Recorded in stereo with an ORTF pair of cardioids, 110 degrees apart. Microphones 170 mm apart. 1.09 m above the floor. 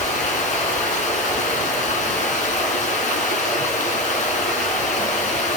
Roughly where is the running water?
Ahead left.